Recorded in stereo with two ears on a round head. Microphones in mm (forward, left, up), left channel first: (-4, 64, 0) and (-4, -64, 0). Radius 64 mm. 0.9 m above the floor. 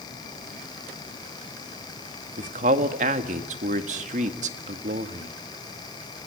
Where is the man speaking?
55° right (ahead or behind), 1.6 m.